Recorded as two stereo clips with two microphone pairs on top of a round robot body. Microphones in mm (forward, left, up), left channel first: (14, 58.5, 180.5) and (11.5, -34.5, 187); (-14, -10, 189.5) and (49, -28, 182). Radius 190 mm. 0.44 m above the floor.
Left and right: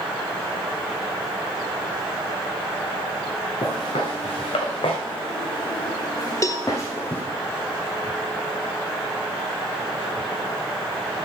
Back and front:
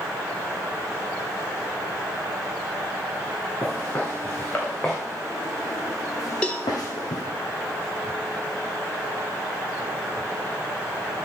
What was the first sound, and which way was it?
Footsteps, 105° left.